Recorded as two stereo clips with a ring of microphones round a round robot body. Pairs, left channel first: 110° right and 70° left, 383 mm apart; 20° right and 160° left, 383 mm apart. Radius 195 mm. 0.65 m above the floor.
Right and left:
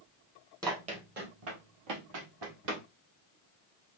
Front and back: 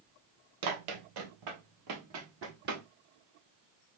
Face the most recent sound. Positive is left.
turn(degrees=90)